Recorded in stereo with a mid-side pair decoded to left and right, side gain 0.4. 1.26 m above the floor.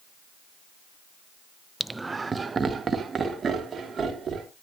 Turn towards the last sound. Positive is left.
turn(degrees=-50)